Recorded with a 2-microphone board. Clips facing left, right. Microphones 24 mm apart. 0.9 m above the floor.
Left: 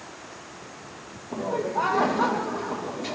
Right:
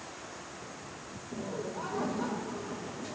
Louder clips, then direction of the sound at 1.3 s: Left 11 dB; 50° left (ahead or behind).